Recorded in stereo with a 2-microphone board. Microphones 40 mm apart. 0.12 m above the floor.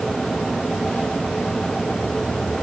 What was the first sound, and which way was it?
Only background noise.